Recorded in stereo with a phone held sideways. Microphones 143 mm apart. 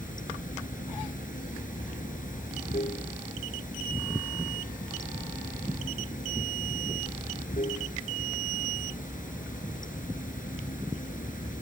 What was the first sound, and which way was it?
Running water, 70° left (ahead or behind).